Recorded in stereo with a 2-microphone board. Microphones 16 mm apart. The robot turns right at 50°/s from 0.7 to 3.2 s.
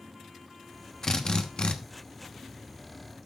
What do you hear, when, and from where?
1.0 s a drill: 30° left, 1.0 m; by 1.8 s 65° left, 1.0 m